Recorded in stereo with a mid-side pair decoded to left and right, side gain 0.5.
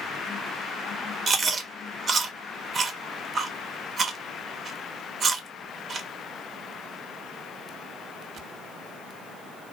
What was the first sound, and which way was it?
Chewing, 40° right.